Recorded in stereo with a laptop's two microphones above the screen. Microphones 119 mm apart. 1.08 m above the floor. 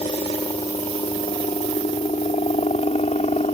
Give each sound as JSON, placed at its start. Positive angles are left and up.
{"t": 0.0, "sound": "a helicopter", "side_deg": 50}